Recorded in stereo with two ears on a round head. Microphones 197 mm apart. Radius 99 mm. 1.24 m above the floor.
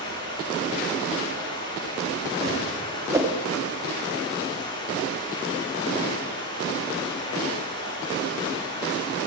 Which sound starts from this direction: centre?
A whoosh, at 3.1 s.